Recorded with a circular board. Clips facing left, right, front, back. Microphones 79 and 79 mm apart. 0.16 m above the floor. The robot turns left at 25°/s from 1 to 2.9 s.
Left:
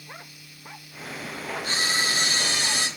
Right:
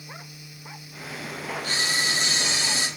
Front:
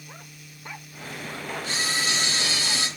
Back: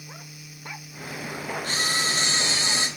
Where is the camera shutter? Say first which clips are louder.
Left 1 dB, even; 140° left, 1.6 m; by 2.9 s 110° left, 1.6 m.